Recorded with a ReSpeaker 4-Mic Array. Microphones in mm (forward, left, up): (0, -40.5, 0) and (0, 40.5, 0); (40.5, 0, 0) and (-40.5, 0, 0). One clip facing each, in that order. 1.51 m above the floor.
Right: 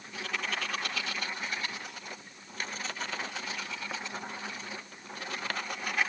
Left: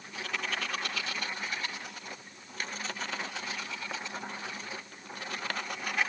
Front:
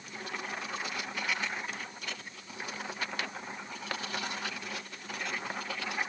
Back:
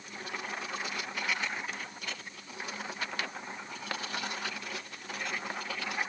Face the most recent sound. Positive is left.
No sound to turn to.